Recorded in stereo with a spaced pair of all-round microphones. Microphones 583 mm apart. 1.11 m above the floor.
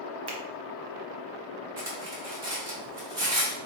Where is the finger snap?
45° right (ahead or behind), 0.7 m.